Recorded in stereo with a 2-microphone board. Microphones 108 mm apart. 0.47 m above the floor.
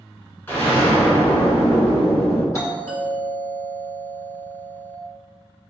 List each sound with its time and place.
0.5 s an explosion: 20° left (ahead or behind), 1.5 m
2.5 s a doorbell: 30° left (ahead or behind), 1.5 m